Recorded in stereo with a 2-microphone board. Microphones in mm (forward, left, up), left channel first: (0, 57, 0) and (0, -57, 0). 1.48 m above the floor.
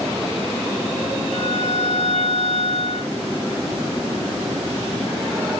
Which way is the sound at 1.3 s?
70° left (ahead or behind).